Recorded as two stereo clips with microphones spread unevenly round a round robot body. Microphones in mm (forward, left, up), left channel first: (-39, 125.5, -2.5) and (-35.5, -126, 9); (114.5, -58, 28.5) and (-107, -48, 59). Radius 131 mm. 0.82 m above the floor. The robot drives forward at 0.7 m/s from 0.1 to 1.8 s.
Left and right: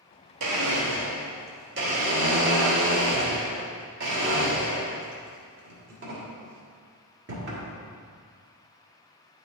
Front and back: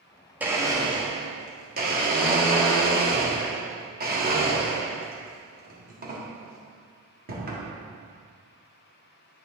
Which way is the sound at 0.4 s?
95° right.